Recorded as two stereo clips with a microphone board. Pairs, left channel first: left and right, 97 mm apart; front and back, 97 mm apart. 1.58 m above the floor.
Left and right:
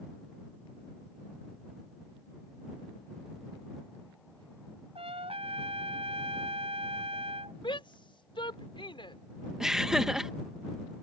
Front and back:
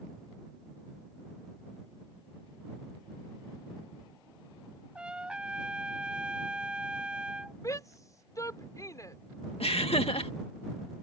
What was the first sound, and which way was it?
A trumpet, 100° right.